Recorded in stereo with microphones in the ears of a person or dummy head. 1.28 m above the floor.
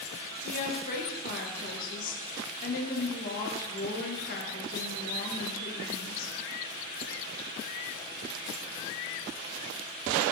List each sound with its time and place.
0.4 s a woman speaking: 45° left (ahead or behind), 1.4 m